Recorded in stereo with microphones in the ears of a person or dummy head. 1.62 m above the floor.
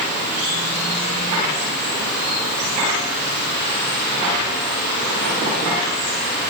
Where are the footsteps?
I don't hear footsteps.